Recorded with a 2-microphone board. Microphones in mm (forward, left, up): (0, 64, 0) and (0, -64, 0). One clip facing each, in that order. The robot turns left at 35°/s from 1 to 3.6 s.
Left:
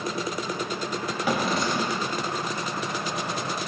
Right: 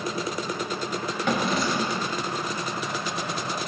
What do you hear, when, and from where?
1.2 s a drawer: 10° left, 1.0 m; by 2.1 s 20° right, 1.0 m